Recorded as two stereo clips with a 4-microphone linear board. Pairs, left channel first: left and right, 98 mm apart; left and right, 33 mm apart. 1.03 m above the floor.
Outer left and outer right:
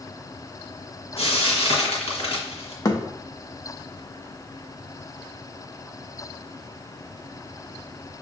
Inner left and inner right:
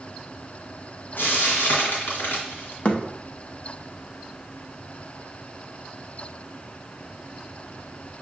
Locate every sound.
1.2 s frying: 65° left (ahead or behind), 1.6 m
2.9 s a thud: 35° left (ahead or behind), 0.6 m